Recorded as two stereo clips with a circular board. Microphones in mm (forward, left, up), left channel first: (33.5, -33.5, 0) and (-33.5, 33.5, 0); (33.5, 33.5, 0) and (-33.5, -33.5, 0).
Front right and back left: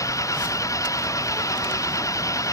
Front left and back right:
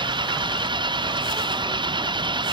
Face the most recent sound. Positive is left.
turn(degrees=-100)